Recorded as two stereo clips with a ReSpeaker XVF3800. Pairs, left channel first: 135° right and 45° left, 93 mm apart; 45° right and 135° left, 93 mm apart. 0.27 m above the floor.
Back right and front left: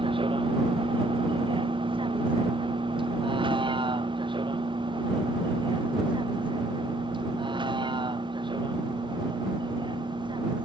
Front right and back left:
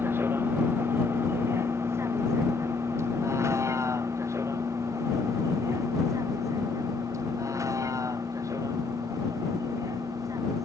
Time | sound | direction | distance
0.0 | a vehicle | 70° left | ?